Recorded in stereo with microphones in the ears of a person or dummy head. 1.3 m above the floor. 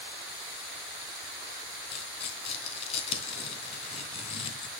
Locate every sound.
1.9 s tearing paper: 35° left (ahead or behind), 2.5 m